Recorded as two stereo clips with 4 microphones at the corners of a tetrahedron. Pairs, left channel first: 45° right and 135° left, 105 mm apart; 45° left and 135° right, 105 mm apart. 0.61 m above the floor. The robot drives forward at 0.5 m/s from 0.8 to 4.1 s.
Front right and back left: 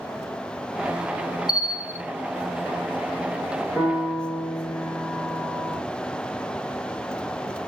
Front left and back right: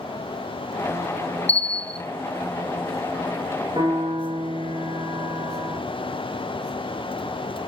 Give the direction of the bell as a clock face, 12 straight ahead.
10 o'clock.